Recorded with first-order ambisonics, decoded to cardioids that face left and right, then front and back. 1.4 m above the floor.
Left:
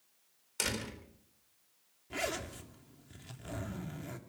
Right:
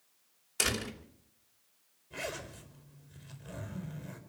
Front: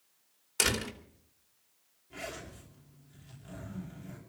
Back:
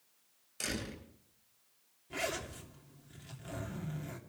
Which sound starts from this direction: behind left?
A zipper, at 2.1 s.